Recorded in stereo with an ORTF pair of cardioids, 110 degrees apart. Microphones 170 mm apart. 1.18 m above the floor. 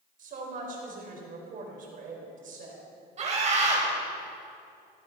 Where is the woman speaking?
55° right, 5.5 m.